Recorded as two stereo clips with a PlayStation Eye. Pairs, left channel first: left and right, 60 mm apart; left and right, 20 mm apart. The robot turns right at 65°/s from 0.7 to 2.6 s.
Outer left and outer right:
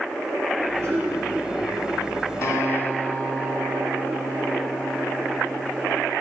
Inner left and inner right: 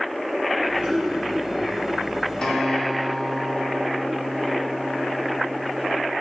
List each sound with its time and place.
0.6 s throat clearing: 65° right (ahead or behind), 2.5 m; by 1.1 s 35° right (ahead or behind), 2.5 m
2.4 s a guitar: 55° left (ahead or behind), 1.5 m; by 6.1 s 40° left (ahead or behind), 1.5 m